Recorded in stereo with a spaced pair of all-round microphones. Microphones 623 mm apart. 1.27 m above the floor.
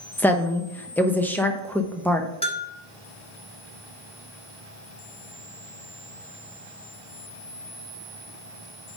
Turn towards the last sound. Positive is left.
turn(degrees=10)  # may be behind; listen again after turning